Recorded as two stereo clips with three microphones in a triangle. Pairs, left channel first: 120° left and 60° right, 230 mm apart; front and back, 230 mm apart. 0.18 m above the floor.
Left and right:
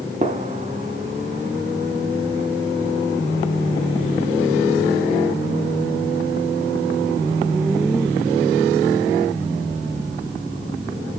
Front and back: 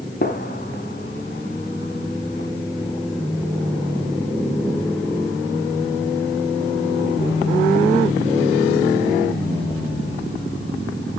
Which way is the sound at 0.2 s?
15° right.